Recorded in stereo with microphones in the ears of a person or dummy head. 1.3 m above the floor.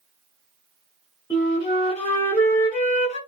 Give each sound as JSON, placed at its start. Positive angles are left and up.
{"t": 1.3, "sound": "a flute", "side_deg": 15, "distance_m": 1.0}